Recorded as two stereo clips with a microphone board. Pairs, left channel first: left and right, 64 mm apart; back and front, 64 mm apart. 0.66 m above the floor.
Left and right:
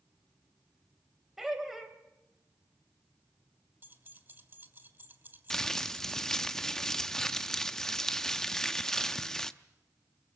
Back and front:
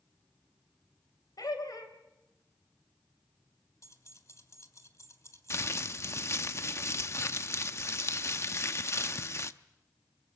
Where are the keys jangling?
145° right, 1.7 m.